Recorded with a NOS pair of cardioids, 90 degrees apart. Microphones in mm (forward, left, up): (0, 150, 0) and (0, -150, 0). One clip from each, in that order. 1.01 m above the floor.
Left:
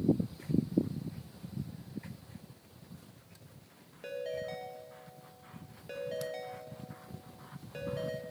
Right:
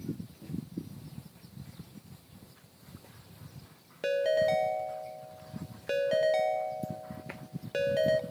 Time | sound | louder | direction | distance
4.0 | a ringtone | right 12 dB | 55° right | 0.6 m